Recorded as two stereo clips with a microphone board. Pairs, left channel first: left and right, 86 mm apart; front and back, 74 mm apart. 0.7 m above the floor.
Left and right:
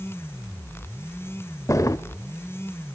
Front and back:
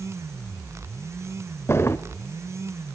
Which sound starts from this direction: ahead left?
A drawer, at 1.7 s.